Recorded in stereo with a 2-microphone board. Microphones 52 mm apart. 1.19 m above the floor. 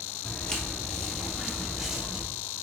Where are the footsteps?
20° left (ahead or behind), 1.5 m; by 2.2 s 15° right (ahead or behind), 1.8 m.